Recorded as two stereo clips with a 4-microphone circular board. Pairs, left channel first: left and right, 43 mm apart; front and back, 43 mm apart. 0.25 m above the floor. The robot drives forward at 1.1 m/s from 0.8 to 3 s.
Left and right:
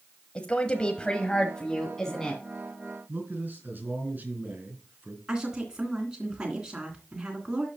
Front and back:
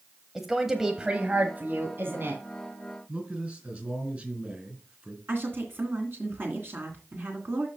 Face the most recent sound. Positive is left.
turn(degrees=-160)